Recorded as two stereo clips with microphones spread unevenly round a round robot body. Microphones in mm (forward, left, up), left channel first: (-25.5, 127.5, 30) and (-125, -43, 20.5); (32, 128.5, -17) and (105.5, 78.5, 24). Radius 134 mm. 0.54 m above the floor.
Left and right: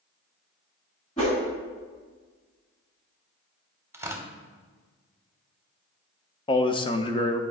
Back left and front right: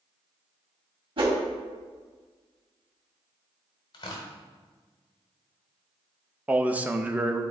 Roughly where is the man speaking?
Left.